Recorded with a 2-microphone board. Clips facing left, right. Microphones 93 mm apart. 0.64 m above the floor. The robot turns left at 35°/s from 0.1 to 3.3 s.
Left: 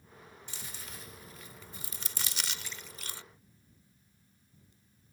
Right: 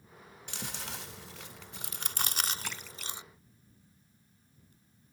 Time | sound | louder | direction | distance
0.5 | chewing | right 8 dB | 65° right (ahead or behind) | ?
2.6 | a splash | right 4 dB | 75° right (ahead or behind) | ?